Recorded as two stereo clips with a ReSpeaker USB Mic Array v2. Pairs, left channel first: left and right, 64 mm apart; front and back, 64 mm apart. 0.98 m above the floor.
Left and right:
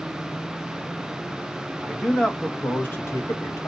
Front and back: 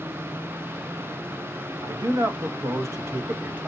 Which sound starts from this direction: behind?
A man speaking, at 1.8 s.